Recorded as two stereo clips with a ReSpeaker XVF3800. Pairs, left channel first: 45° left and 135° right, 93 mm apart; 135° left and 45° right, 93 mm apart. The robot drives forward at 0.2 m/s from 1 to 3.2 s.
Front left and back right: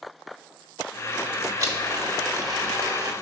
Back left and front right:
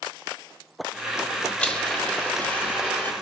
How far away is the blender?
About 1.2 m.